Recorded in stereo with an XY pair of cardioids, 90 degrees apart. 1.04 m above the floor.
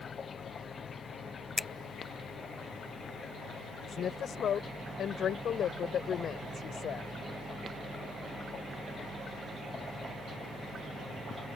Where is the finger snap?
30° left.